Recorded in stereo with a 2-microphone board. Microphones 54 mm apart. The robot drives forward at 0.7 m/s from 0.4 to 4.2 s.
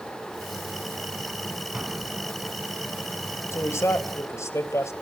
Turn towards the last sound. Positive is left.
turn(degrees=65)  # may be behind; listen again after turning